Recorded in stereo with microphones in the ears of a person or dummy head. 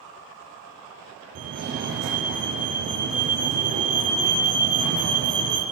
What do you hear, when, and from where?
1.4 s a fire alarm: 60° right (ahead or behind), 1.4 m